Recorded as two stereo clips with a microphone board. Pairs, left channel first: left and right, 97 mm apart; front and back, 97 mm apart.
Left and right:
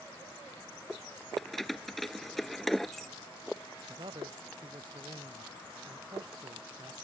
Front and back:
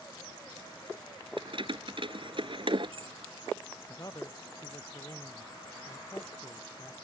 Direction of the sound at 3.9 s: 55° right.